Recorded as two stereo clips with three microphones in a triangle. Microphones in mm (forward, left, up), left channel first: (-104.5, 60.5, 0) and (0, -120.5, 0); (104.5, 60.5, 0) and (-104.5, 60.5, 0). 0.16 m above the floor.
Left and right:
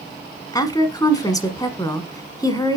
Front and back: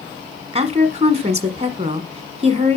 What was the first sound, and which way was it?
A woman speaking, 175° left.